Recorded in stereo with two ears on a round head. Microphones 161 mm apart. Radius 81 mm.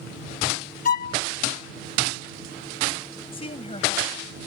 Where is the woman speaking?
35° left (ahead or behind).